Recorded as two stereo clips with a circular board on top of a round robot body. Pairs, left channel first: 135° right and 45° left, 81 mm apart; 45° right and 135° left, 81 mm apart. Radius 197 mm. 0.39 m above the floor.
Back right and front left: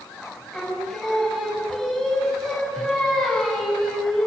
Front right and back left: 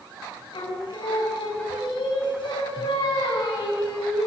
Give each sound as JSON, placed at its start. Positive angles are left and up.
{"t": 0.5, "sound": "singing", "azimuth_deg": -50, "distance_m": 6.0}